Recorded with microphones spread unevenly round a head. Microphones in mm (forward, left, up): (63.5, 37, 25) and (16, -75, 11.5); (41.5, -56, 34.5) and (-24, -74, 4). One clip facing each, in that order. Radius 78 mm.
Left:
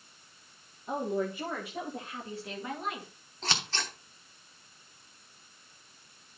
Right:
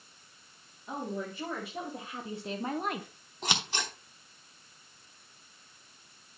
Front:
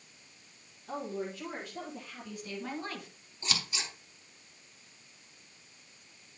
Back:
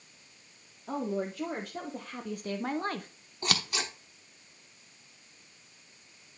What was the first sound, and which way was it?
A woman speaking, 150° left.